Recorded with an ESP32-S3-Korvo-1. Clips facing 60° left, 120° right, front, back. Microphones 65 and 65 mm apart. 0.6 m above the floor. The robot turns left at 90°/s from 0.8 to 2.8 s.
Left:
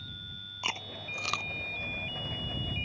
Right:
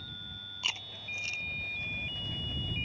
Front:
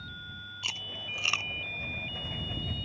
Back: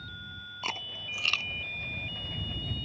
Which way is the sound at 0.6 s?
125° left.